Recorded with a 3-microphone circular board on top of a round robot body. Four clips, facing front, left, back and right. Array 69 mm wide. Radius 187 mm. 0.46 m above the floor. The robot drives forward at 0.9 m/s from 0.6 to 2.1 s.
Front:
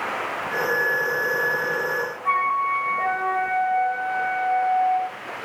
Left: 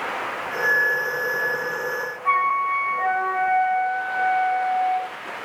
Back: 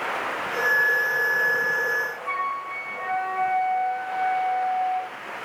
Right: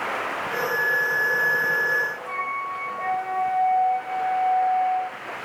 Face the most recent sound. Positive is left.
turn(degrees=55)